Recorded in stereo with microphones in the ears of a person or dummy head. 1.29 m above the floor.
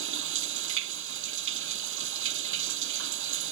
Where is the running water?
80° right.